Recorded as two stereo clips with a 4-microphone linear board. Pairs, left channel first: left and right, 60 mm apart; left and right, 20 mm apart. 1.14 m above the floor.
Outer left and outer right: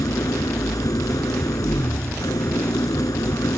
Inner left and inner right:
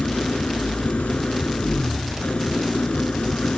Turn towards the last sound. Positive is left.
turn(degrees=75)  # may be behind; listen again after turning